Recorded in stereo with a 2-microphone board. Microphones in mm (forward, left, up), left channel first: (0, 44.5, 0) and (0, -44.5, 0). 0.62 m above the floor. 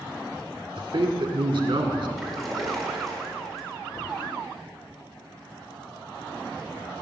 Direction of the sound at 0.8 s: 60° right (ahead or behind).